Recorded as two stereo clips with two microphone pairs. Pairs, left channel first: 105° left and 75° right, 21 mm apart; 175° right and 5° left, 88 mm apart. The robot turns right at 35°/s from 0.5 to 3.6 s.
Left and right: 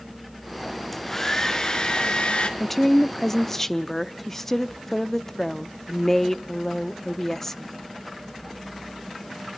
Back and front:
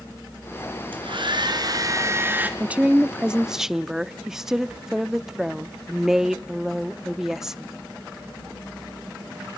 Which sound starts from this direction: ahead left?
A woman speaking, at 2.6 s.